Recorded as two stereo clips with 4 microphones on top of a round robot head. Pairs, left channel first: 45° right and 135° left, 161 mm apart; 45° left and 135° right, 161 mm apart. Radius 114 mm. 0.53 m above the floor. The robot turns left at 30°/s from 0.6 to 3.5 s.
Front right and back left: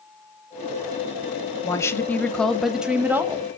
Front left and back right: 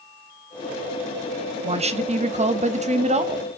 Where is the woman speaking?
105° right, 0.8 m; by 3.5 s 160° right, 0.8 m.